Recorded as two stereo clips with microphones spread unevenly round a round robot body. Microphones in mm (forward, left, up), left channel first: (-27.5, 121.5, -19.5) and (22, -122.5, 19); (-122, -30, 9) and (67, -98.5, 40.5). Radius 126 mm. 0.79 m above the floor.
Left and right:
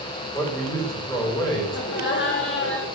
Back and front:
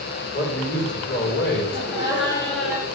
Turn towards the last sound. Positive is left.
turn(degrees=140)